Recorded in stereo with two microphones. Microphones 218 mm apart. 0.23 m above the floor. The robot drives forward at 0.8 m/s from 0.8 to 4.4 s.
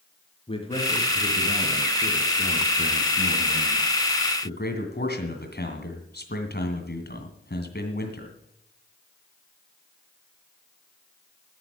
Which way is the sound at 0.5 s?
25° left (ahead or behind).